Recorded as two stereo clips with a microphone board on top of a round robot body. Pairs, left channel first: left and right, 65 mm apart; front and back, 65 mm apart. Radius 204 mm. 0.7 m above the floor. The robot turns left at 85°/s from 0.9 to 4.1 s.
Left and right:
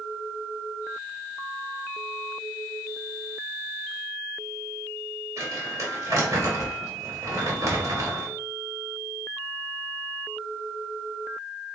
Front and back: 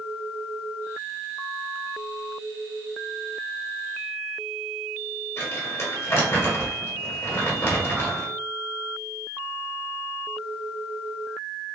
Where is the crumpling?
50° right, 1.5 m.